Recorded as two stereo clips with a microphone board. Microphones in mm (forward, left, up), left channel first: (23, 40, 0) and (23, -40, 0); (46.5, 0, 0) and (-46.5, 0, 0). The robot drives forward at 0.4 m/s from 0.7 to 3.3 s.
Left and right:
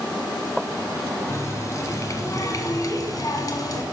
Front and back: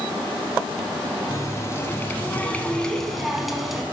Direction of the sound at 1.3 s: 45° left.